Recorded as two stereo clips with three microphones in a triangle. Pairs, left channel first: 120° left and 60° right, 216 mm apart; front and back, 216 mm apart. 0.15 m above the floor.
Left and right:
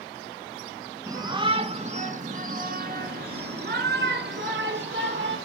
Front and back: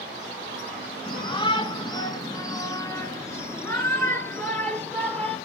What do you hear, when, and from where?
1.1 s a shout: 10° right, 1.1 m; by 5.4 s 80° right, 2.5 m